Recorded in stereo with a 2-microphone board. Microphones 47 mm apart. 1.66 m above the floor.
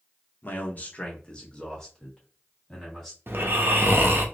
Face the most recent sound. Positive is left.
turn(degrees=-55)  # may be behind; listen again after turning